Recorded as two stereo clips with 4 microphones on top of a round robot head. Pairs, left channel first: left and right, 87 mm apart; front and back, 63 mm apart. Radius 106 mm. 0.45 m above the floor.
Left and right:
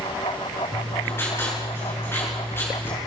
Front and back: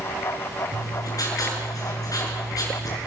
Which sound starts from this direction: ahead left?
Writing, at 0.7 s.